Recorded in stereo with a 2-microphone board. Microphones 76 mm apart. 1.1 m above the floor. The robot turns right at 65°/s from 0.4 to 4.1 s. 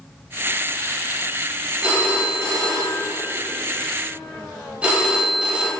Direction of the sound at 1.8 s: 165° right.